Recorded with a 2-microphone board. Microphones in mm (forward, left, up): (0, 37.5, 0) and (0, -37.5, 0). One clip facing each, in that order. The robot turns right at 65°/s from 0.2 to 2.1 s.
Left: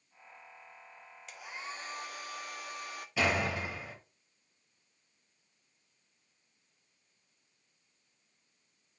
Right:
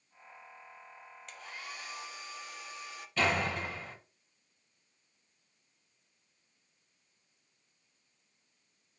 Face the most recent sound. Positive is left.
turn(degrees=10)  # may be behind; listen again after turning